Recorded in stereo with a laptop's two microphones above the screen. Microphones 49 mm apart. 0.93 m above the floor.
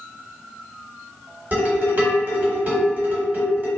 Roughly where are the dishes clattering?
Right.